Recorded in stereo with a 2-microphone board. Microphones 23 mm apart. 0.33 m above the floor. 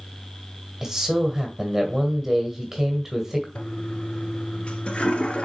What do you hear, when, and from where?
0.8 s a man speaking: 20° right (ahead or behind), 1.7 m
3.5 s a toilet flushing: 55° left (ahead or behind), 1.3 m